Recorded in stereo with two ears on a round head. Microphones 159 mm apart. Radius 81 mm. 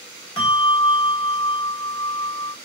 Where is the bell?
35° left (ahead or behind), 1.5 m.